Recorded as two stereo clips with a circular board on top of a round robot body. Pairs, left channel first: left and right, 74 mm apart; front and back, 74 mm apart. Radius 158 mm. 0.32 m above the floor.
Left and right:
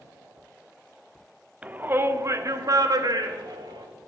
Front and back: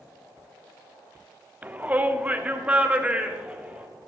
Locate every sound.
1.6 s a shout: 140° right, 0.9 m; by 3.9 s 105° right, 1.9 m